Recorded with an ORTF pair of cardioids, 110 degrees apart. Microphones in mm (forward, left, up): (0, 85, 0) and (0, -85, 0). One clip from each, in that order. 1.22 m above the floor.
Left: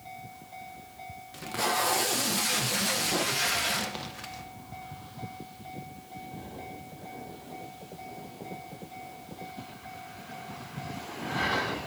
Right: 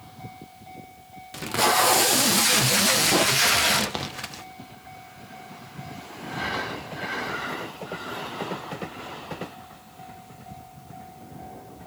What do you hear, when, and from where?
1.3 s tape being pulled: 40° right, 0.6 m